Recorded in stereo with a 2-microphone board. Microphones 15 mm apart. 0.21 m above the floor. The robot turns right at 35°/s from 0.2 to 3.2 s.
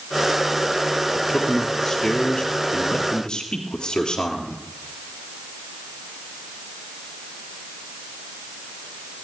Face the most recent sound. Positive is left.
turn(degrees=85)